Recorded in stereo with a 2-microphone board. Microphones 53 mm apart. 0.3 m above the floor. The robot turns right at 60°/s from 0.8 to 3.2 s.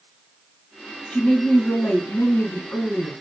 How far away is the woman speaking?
About 1.6 m.